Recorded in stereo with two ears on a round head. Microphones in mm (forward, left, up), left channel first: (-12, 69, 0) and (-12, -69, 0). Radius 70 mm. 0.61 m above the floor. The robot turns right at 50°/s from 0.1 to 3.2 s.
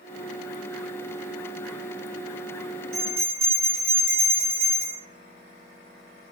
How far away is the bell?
About 1.8 m.